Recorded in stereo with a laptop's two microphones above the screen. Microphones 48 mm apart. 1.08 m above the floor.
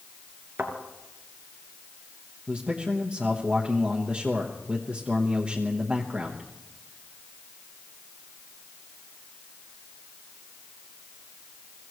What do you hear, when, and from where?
0.6 s a thud: 50° right (ahead or behind), 2.5 m
2.5 s a man speaking: 20° right (ahead or behind), 1.1 m